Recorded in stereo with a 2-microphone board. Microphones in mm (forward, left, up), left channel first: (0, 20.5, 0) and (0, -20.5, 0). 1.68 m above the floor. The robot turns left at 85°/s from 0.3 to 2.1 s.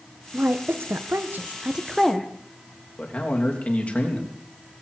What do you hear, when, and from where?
0.3 s a woman speaking: 35° right (ahead or behind), 0.9 m; by 2.3 s 10° left (ahead or behind), 0.9 m
3.0 s a man speaking: 30° left (ahead or behind), 3 m